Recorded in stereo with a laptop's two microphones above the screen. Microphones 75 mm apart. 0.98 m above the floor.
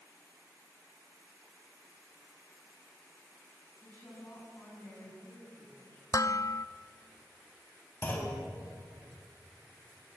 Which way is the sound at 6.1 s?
50° left (ahead or behind).